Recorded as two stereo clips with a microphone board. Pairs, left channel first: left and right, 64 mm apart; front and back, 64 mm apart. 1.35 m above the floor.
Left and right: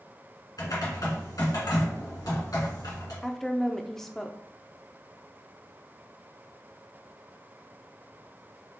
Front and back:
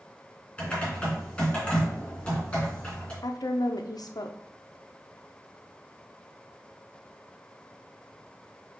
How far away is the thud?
No thud in this recording.